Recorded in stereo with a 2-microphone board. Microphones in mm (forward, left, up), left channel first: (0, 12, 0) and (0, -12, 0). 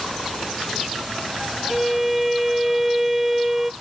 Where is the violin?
5° right (ahead or behind), 0.7 m.